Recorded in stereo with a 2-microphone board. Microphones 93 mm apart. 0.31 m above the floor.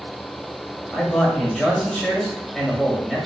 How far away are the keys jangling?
I don't hear keys jangling.